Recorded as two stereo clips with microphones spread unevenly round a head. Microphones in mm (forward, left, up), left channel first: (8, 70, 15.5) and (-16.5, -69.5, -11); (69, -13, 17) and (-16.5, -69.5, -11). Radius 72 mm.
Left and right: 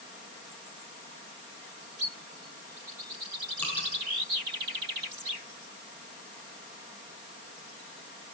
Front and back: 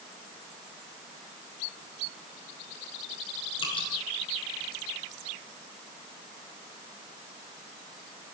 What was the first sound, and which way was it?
Dripping, 5° left.